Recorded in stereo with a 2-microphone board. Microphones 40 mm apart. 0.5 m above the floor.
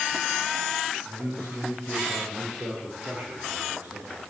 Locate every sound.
1.1 s a man speaking: 55° right (ahead or behind), 9 m; by 4.2 s 45° right (ahead or behind), 6 m